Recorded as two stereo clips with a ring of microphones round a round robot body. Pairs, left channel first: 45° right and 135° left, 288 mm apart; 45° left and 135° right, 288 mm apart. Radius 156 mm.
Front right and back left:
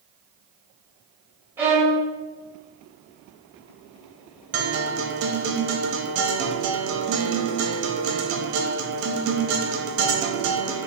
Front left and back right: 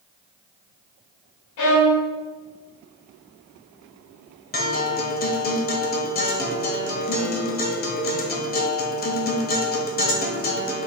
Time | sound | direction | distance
1.6 | a violin | 50° left | 1.4 m
4.5 | a guitar | 100° left | 0.9 m